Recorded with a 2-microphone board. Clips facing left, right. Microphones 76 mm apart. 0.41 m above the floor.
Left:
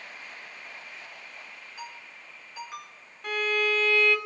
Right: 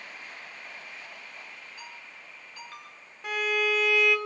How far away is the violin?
About 2.5 m.